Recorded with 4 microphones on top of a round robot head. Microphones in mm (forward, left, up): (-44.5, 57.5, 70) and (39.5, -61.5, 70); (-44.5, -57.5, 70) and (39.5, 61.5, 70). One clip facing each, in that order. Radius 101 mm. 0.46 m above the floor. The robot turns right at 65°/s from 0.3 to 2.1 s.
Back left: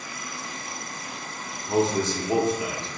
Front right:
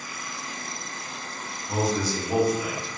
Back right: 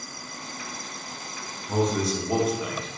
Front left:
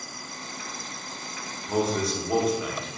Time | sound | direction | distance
1.7 | a man speaking | 120° left | 0.9 m